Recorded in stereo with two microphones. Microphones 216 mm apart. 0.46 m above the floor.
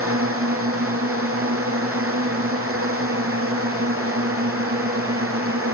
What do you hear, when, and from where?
0.0 s a drone: 85° right